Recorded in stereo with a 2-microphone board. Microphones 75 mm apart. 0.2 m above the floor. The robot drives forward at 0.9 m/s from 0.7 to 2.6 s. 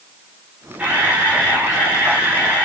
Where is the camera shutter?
20° right (ahead or behind), 6.5 m; by 2.6 s 15° right (ahead or behind), 8 m.